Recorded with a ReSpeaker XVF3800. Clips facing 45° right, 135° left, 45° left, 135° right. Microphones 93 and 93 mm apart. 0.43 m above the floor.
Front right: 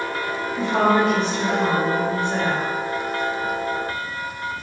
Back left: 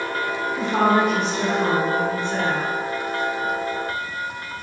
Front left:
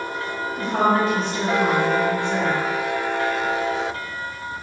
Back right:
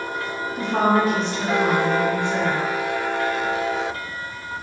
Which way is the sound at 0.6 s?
75° left.